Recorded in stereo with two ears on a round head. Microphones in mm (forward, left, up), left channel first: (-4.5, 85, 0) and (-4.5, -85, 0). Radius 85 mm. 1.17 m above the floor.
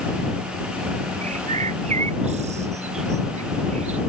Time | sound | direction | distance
1.2 | a bird | 40° right (ahead or behind) | ?